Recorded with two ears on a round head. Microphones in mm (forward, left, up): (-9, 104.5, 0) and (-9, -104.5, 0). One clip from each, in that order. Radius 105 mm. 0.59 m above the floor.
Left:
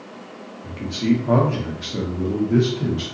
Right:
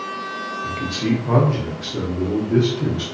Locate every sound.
0.6 s a man speaking: 20° right (ahead or behind), 0.7 m; by 3.0 s 30° left (ahead or behind), 1.1 m